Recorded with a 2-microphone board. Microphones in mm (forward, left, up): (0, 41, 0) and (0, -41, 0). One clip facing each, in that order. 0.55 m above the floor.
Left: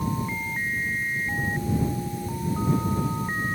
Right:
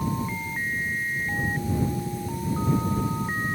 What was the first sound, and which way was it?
Only background noise.